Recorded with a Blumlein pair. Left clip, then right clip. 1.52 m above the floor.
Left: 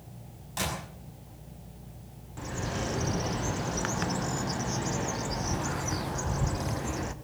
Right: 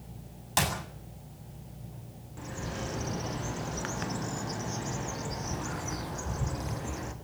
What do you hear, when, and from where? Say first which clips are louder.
0.6 s a clap: right 4 dB; 60° right, 7.5 m
2.4 s a bird: left 4 dB; 15° left, 1.5 m